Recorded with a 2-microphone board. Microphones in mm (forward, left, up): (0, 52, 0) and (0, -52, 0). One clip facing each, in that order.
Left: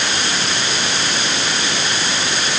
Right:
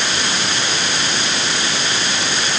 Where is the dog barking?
I don't hear a dog barking.